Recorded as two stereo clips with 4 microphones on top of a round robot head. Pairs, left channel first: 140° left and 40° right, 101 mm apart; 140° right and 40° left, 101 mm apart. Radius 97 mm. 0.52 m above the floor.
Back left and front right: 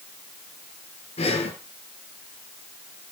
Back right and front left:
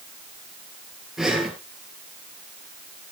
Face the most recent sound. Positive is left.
turn(degrees=125)